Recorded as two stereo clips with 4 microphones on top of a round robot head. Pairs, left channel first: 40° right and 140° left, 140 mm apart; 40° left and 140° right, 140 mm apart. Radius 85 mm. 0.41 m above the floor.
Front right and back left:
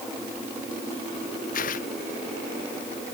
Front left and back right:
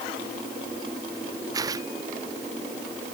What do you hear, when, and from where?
1.5 s tearing paper: 75° right